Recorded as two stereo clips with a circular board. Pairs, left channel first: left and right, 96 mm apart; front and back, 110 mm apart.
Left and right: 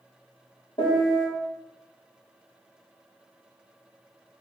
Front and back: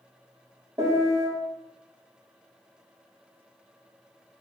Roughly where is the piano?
Behind left.